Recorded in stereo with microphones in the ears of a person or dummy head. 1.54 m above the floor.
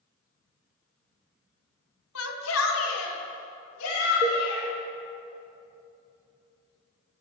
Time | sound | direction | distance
2.1 | a shout | 80° left | 1.1 m
4.2 | a cowbell | 30° right (ahead or behind) | 1.5 m